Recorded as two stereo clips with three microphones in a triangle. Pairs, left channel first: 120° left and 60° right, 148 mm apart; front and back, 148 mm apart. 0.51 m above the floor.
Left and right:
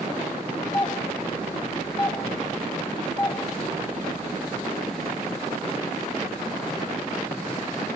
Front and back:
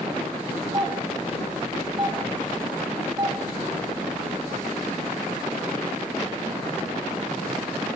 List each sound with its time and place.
0.7 s a doorbell: 140° left, 1.9 m